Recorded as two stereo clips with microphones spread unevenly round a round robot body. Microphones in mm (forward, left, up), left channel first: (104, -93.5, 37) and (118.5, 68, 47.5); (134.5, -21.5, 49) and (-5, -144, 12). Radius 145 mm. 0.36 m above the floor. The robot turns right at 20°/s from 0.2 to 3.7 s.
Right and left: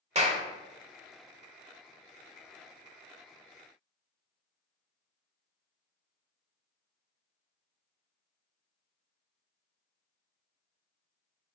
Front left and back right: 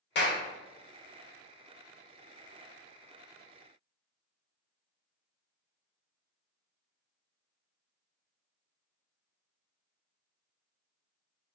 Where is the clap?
50° left, 1.6 m; by 0.4 s 55° left, 1.6 m.